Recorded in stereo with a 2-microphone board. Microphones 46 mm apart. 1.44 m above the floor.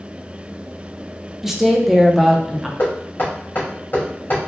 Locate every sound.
1.4 s a woman speaking: 5° right (ahead or behind), 0.8 m
2.8 s knocking: 55° left (ahead or behind), 2 m